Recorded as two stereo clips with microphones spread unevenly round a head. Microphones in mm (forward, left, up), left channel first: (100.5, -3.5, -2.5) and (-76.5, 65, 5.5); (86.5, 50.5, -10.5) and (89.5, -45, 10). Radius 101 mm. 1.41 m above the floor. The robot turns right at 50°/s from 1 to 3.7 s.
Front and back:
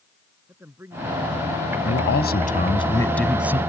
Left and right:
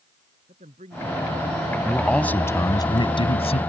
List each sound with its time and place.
0.5 s a man speaking: 120° right; by 1.8 s 85° right
1.9 s a man speaking: 5° right; by 3.6 s 85° left